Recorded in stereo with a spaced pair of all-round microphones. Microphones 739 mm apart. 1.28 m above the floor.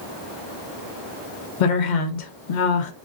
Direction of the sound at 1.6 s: 85° left.